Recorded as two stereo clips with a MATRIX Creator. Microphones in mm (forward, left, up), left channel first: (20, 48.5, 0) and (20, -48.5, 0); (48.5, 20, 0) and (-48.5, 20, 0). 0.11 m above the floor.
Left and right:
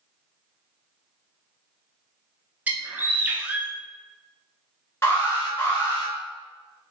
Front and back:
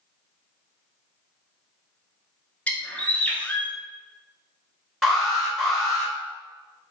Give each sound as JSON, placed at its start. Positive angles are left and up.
{"t": 2.7, "sound": "a bird", "azimuth_deg": -50, "distance_m": 0.6}
{"t": 5.0, "sound": "an alarm", "azimuth_deg": 85, "distance_m": 1.2}